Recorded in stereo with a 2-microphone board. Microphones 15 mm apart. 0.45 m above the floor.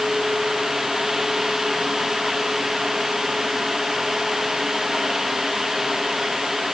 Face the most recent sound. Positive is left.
No sound to turn to.